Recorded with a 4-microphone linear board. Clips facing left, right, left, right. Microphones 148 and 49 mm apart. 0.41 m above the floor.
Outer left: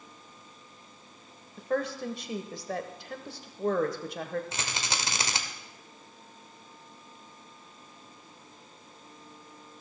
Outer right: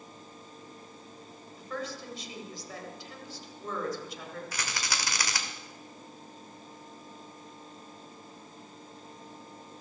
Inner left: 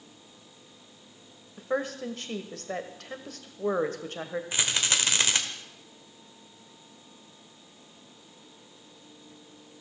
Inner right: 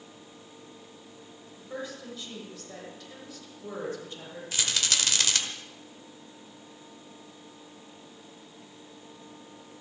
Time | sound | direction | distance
1.6 | a woman speaking | 60° left (ahead or behind) | 1.4 m
4.5 | a rattle | 25° left (ahead or behind) | 1.3 m